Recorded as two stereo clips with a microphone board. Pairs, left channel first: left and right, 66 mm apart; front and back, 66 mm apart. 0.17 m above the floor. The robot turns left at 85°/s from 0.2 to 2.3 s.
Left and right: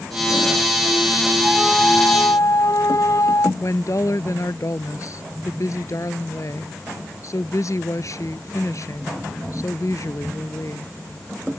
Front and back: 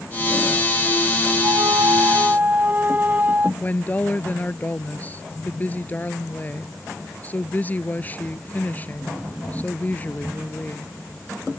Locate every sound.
1.4 s a flute: 165° right; by 3.5 s 120° left
3.6 s a woman speaking: 60° left